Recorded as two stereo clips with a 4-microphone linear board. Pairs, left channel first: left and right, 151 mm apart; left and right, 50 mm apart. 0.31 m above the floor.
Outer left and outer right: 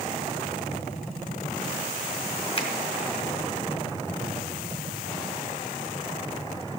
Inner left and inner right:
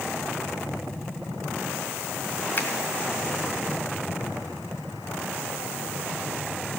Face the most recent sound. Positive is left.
turn(degrees=40)  # may be behind; listen again after turning